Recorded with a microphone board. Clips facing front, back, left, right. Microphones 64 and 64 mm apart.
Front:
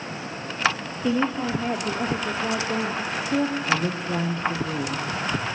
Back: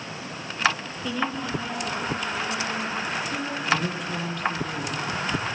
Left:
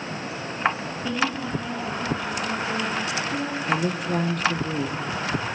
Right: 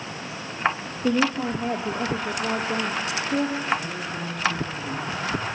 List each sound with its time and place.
1.0 s a woman speaking: 60° right, 2.5 m; by 3.6 s 40° right, 3.5 m
3.7 s a woman speaking: 65° left, 3.5 m